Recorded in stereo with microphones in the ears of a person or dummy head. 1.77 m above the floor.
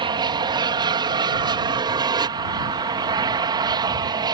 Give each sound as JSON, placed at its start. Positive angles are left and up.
{"t": 0.0, "sound": "an aircraft", "side_deg": -25}